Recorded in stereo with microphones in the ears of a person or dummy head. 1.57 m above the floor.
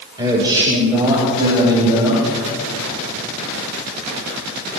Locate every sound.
0.2 s a man speaking: 20° right (ahead or behind), 2.5 m; by 2.3 s 25° right (ahead or behind), 4.5 m